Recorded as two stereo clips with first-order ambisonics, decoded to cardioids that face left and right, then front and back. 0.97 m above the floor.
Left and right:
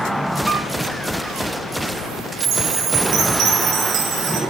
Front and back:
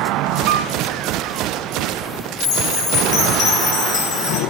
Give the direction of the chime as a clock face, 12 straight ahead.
2 o'clock.